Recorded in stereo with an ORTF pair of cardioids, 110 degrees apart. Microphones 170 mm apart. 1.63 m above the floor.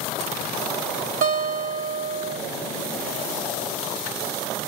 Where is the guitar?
60° right, 1.2 m.